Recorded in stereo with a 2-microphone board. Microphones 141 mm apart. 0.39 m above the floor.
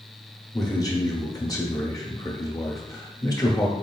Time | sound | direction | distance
0.5 | a man speaking | 25° left (ahead or behind) | 0.9 m